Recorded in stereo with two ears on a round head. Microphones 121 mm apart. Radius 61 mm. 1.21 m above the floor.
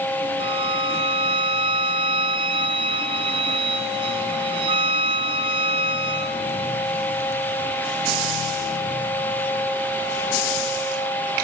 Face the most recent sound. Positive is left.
turn(degrees=-40)  # may be behind; listen again after turning